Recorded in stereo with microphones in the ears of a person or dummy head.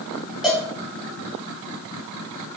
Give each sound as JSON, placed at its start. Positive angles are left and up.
{"t": 0.4, "sound": "a cowbell", "side_deg": 0, "distance_m": 0.8}